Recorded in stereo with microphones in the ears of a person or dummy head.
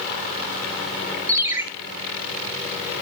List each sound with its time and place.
1.3 s a ringtone: 15° right (ahead or behind), 1.1 m